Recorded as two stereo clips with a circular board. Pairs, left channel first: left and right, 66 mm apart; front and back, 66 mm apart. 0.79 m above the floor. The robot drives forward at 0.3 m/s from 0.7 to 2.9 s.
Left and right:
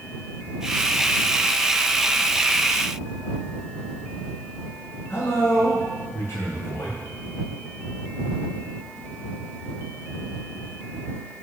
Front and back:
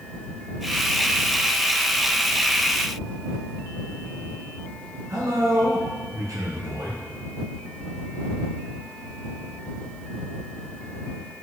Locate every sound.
5.1 s a man speaking: 140° left, 8 m